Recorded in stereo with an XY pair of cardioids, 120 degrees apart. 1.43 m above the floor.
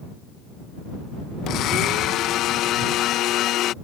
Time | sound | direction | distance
1.5 | a blender | 70° left | ?